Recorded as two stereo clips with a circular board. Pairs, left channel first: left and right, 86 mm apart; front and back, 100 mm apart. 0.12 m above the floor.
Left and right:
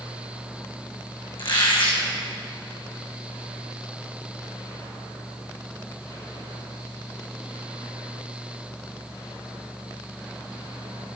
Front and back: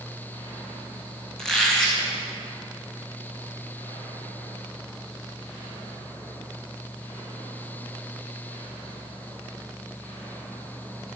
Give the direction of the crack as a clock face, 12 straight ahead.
No crack in this recording.